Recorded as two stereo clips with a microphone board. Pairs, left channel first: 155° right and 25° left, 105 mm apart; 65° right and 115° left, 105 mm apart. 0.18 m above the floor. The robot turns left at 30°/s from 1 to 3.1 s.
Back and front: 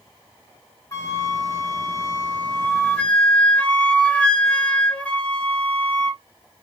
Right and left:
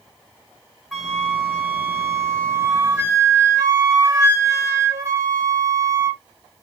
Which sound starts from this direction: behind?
A flute, at 0.9 s.